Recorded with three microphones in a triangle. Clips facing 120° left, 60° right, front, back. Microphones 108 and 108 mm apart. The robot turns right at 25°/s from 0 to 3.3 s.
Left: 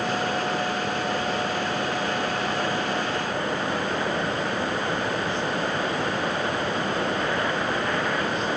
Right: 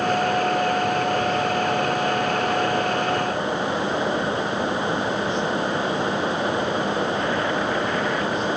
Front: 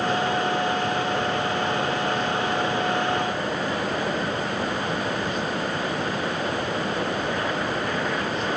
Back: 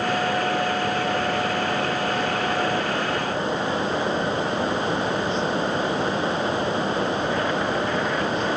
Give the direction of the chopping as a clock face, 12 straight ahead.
I don't hear chopping.